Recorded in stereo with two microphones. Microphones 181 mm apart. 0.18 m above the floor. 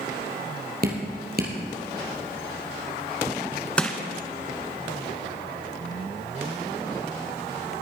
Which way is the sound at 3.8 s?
5° left (ahead or behind).